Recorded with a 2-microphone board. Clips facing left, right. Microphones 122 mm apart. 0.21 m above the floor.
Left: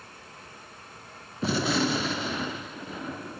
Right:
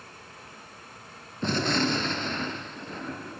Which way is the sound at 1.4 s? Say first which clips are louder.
Left 1 dB; 5° left (ahead or behind).